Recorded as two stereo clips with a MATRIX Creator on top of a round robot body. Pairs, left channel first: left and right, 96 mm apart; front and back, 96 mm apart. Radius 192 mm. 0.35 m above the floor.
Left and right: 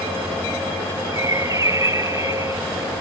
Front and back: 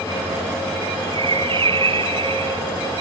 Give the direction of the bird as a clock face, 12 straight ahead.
5 o'clock.